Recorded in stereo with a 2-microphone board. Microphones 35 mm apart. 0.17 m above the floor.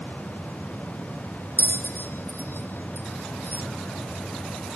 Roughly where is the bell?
Left.